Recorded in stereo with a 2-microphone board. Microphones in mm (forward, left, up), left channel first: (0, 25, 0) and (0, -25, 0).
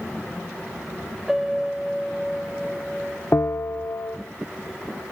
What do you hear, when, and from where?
1.3 s a piano: 5° right (ahead or behind), 0.9 m
3.3 s a bell: 45° left (ahead or behind), 0.5 m